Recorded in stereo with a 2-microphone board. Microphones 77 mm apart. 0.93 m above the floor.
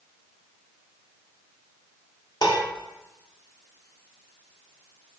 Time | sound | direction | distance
2.4 | dishes clattering | 55° left (ahead or behind) | 1.4 m